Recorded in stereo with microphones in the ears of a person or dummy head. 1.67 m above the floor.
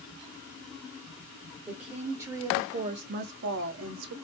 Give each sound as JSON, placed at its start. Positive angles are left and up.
{"t": 1.7, "sound": "a woman speaking", "side_deg": -10, "distance_m": 1.4}